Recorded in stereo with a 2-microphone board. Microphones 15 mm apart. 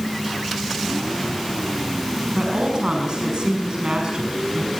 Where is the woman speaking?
60° right (ahead or behind), 6 m.